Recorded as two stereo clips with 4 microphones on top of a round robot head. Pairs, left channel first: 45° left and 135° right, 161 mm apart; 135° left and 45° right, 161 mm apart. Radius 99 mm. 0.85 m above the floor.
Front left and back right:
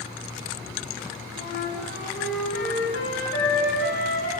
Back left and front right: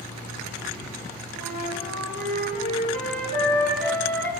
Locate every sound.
1.4 s a flute: 55° left, 9 m